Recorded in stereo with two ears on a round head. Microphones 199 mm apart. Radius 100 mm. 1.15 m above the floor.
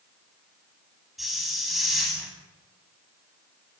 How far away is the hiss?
About 9 m.